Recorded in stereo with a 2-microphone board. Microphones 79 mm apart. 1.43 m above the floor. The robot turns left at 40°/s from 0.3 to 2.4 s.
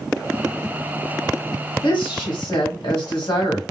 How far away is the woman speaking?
About 1.3 m.